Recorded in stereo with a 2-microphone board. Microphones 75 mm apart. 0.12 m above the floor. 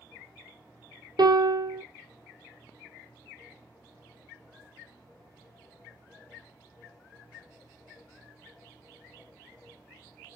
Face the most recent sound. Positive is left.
turn(degrees=-70)  # may be behind; listen again after turning